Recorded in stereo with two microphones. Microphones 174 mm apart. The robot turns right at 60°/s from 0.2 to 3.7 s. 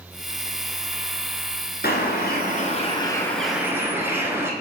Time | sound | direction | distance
1.8 | a bird | 85° left | 1.2 m